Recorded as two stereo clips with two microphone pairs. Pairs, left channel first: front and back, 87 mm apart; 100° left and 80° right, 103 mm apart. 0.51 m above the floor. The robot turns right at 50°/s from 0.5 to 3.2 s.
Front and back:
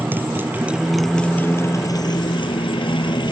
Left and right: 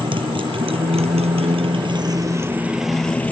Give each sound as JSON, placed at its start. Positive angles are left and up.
{"t": 0.0, "sound": "a motorcycle", "azimuth_deg": -115}